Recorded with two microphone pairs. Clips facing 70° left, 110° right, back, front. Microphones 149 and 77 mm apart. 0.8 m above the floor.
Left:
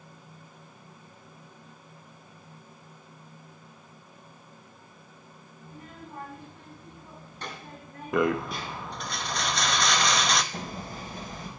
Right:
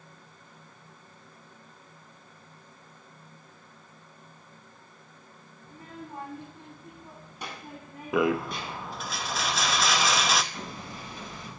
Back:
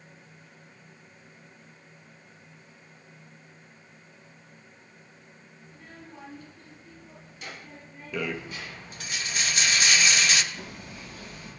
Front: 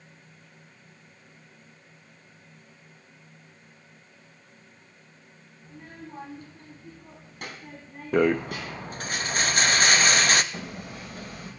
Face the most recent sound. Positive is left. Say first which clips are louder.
# left 3 dB, front 4 dB
turn(degrees=25)